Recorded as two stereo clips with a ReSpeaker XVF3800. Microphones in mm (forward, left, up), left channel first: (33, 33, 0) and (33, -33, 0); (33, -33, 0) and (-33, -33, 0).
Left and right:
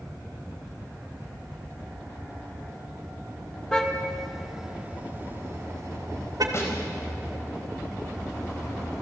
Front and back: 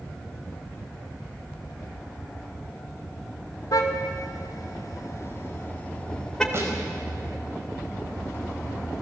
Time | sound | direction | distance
3.7 | a car horn | 10° left | 2.5 m
6.5 | a snare drum | 135° left | 4.5 m